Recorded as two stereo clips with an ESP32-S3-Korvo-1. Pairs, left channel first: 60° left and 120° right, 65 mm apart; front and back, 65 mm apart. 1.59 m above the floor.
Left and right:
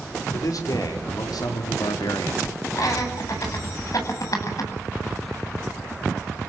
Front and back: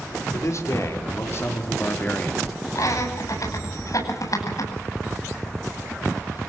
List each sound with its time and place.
0.3 s a man speaking: 35° left, 5.5 m; by 2.5 s 70° left, 3 m
2.8 s laughter: 30° left, 9.5 m